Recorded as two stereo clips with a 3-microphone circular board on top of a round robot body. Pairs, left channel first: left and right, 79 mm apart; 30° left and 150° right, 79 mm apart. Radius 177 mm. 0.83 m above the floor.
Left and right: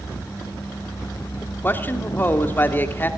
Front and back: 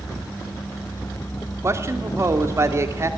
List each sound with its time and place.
1.6 s a man speaking: 155° left, 2.5 m